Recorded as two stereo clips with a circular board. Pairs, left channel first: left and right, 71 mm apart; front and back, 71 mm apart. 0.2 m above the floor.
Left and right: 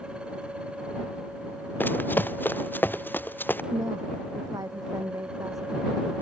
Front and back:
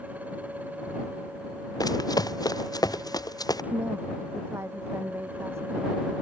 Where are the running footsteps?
25° left.